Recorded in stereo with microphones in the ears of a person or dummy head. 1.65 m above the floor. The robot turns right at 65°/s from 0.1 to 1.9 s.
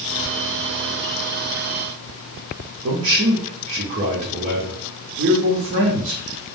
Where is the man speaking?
30° right (ahead or behind), 0.6 m.